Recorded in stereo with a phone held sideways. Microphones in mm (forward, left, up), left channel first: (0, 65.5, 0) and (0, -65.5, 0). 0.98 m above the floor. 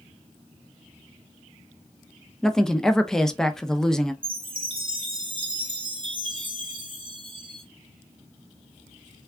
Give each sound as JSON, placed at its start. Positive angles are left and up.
{"t": 2.4, "sound": "a woman speaking", "side_deg": 5, "distance_m": 0.5}
{"t": 4.2, "sound": "a chime", "side_deg": -40, "distance_m": 1.0}